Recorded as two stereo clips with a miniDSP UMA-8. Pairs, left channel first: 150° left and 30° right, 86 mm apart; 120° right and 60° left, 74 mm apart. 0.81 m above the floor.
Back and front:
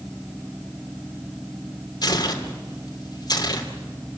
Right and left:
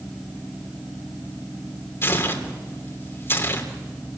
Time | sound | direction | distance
2.0 | tearing paper | 175° right | 3 m